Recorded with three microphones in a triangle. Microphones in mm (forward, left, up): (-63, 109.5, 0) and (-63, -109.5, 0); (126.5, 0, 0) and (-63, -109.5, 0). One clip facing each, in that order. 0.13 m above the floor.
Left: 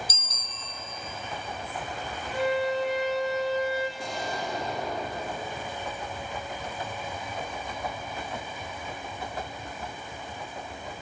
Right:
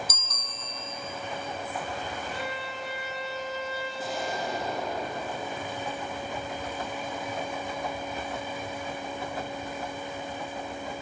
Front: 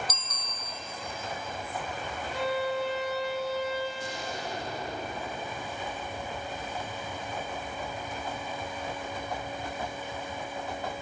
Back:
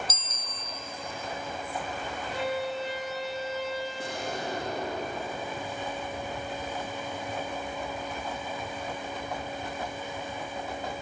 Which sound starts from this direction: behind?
An explosion, at 4.0 s.